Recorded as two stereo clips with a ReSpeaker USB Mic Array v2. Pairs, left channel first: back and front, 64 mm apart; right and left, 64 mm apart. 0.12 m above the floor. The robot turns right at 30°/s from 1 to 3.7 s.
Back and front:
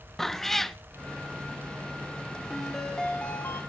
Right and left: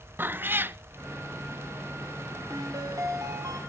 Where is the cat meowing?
100° left, 0.6 m.